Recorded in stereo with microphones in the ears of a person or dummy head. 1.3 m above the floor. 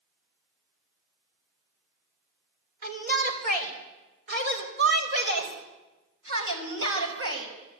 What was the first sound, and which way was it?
A shout, 45° right (ahead or behind).